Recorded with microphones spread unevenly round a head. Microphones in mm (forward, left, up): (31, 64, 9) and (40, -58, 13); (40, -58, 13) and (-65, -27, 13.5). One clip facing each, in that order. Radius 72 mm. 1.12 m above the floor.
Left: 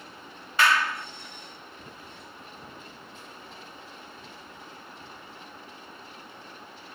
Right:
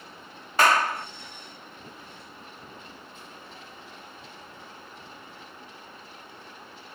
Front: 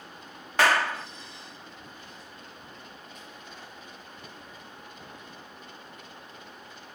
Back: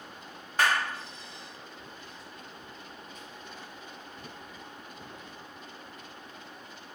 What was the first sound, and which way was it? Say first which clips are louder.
A clap: right 3 dB, front 4 dB; 35° right.